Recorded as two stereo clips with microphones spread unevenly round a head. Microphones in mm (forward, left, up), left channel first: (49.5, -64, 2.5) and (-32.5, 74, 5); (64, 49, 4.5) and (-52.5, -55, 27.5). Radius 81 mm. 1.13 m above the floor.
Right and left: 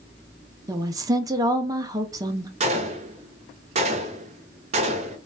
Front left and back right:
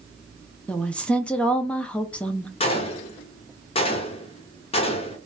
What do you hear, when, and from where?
0.7 s a woman speaking: 90° left, 0.5 m
2.6 s a gunshot: 80° left, 0.6 m